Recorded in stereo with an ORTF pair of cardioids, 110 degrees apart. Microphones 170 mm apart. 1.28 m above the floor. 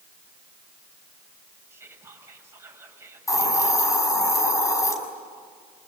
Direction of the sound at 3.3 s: 20° left.